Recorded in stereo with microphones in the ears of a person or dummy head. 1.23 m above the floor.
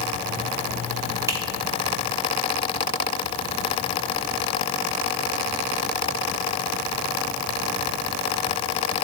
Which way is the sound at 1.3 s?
20° right (ahead or behind).